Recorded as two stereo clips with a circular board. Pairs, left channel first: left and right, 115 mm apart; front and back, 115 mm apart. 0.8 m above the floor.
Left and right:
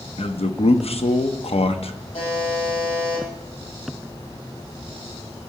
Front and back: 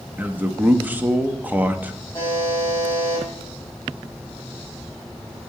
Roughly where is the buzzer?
Left.